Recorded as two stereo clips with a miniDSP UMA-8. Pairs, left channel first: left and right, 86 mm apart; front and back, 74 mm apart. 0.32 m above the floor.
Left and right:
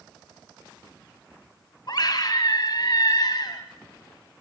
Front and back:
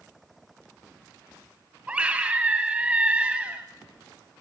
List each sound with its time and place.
1.9 s a scream: 110° left, 1.7 m